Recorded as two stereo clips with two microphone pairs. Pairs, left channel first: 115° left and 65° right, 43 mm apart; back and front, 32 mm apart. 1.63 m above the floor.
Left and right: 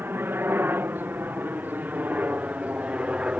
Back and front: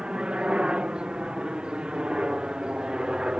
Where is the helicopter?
60° right; by 3.4 s 35° right.